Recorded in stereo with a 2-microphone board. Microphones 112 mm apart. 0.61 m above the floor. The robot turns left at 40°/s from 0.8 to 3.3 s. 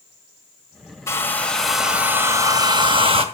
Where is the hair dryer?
25° left, 1.8 m; by 3.2 s 60° right, 1.8 m.